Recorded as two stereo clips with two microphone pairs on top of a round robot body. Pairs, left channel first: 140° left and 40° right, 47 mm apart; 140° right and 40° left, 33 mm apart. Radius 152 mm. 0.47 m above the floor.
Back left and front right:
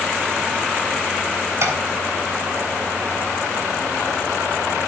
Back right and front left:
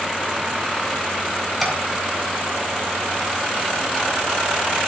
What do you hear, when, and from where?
1.6 s tapping: 50° right, 3.5 m